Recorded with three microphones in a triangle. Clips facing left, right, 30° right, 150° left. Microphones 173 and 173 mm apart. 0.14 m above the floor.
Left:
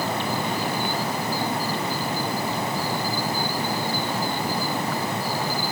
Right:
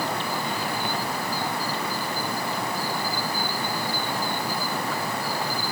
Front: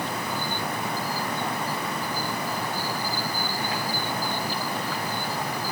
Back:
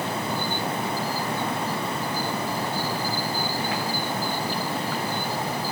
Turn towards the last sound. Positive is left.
No sound to turn to.